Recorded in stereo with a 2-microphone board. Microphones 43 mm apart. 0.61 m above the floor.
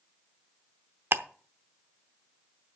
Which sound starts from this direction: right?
Ticking, at 1.1 s.